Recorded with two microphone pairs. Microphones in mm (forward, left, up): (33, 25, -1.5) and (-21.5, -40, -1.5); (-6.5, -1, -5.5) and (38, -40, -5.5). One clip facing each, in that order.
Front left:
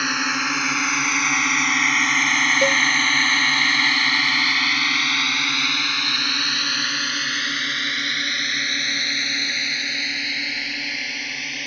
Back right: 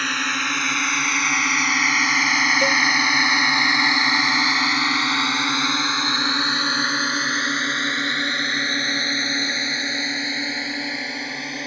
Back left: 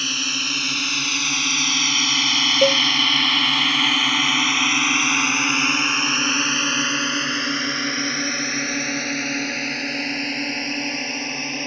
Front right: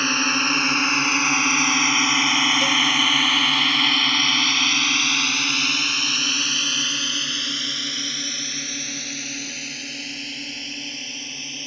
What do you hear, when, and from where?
0.0 s a drone: 30° right; by 11.7 s 170° left
2.6 s a cowbell: 125° left